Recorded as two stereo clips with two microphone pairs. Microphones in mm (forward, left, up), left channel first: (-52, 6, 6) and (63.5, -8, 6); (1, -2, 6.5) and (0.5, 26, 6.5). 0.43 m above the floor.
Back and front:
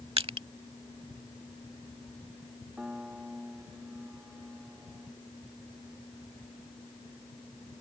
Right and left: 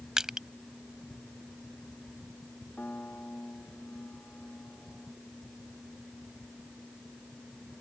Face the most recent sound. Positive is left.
turn(degrees=-90)